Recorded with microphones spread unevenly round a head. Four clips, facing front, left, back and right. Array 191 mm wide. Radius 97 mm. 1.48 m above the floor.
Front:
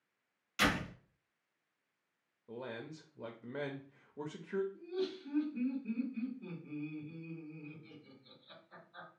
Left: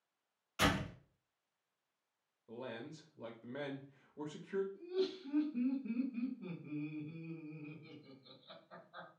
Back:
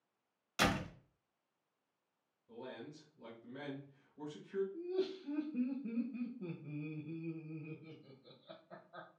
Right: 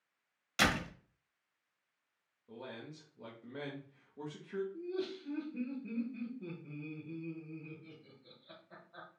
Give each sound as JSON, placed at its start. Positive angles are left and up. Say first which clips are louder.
{"t": 0.6, "sound": "a door slam", "louder": "right 2 dB, front 1 dB", "azimuth_deg": -100, "distance_m": 1.4}
{"t": 2.5, "sound": "a man speaking", "louder": "left 1 dB, front 4 dB", "azimuth_deg": 5, "distance_m": 0.6}
{"t": 4.7, "sound": "laughter", "louder": "left 1 dB, back 1 dB", "azimuth_deg": -170, "distance_m": 1.2}